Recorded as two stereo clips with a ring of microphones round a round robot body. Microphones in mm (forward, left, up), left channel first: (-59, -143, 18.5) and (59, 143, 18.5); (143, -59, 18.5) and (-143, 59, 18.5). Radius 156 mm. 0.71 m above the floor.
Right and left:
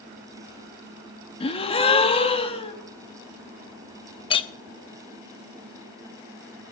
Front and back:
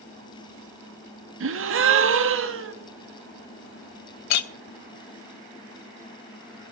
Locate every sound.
1.4 s a gasp: straight behind, 1.4 m
4.3 s a clink: 40° right, 0.8 m